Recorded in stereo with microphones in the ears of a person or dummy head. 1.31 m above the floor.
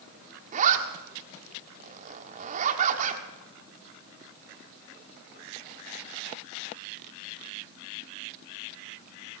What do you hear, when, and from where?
0.5 s a zipper: 45° right (ahead or behind), 1.4 m